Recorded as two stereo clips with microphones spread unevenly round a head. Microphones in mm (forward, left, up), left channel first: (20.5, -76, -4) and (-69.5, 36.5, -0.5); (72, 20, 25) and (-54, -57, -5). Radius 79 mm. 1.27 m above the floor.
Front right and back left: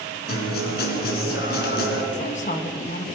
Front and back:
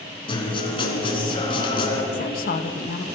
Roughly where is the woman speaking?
Ahead.